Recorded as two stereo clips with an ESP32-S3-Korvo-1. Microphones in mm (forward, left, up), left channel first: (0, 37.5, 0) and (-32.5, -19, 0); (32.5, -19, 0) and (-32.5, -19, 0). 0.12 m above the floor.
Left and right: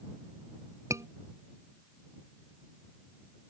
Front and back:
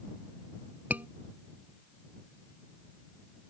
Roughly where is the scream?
Behind right.